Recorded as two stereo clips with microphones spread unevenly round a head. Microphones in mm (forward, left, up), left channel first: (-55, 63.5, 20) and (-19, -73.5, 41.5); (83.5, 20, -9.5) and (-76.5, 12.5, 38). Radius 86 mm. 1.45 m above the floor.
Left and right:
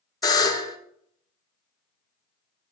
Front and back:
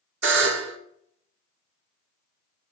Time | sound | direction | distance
0.2 | a buzzer | 165° left | 1.3 m